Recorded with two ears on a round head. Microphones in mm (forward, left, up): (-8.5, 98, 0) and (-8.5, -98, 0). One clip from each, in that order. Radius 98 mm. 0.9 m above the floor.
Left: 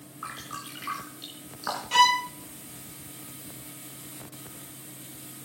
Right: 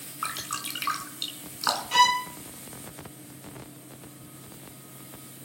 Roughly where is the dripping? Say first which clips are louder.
Right 5 dB; right.